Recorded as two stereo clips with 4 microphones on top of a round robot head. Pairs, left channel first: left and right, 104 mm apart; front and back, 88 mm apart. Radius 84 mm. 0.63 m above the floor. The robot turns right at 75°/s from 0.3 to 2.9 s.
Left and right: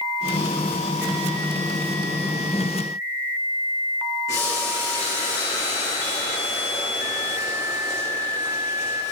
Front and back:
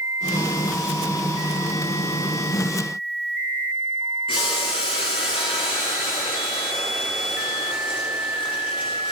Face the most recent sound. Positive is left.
turn(degrees=20)